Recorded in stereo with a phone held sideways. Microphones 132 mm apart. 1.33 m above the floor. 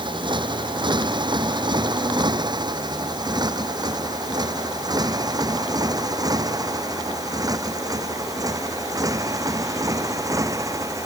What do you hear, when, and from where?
0.0 s a motorcycle: 35° right (ahead or behind); by 11.1 s 25° right (ahead or behind)